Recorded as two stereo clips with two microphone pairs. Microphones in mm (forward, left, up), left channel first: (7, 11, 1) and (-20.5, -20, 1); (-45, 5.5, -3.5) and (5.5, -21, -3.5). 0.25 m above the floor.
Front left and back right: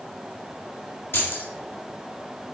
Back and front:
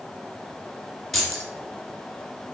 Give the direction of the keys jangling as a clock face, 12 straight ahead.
10 o'clock.